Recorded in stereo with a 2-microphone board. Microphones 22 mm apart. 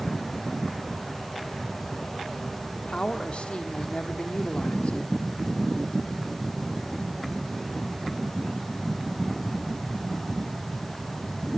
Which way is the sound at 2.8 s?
70° left (ahead or behind).